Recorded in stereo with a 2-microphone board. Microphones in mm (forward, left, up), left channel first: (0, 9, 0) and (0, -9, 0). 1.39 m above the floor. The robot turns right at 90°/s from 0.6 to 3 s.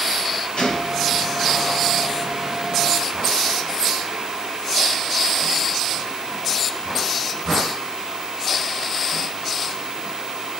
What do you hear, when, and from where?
0.6 s a gunshot: 115° left, 6 m; by 1.2 s 170° left, 6 m